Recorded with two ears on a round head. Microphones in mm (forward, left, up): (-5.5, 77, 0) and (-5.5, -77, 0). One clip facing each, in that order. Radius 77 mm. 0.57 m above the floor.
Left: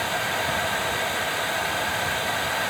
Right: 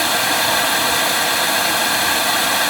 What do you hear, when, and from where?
0.0 s running water: 85° right, 1.3 m